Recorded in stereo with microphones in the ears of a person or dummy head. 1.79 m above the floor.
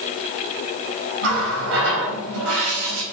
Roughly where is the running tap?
Right.